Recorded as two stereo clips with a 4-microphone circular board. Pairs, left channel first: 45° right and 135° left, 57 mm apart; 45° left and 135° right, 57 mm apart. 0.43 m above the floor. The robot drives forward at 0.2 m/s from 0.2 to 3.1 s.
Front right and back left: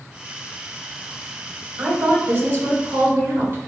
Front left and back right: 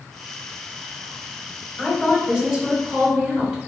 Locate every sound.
1.8 s a woman speaking: 150° left, 1.1 m; by 3.7 s 155° left, 1.2 m